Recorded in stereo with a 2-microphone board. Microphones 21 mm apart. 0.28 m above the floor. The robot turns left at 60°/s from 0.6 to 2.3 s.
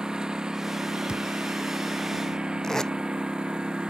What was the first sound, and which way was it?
A lawn mower, 35° right.